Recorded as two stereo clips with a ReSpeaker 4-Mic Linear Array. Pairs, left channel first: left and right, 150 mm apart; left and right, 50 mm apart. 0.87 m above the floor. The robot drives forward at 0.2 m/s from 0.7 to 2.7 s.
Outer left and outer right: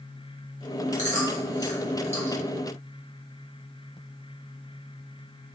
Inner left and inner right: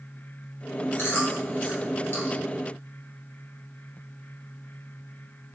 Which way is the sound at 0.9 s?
55° left (ahead or behind).